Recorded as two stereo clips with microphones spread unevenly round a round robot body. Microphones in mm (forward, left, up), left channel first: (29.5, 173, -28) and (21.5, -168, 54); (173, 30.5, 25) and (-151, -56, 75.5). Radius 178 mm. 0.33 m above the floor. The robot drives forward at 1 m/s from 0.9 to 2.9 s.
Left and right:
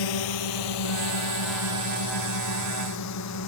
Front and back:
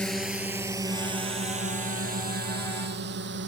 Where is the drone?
105° left; by 3.5 s 135° left.